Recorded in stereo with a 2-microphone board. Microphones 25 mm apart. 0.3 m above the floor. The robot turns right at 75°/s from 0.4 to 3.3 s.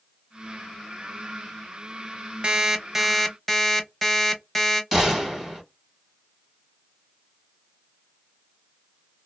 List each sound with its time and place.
2.4 s an alarm clock: 55° right, 0.6 m; by 4.8 s 10° left, 0.6 m
4.9 s a gunshot: 5° right (ahead or behind), 1.3 m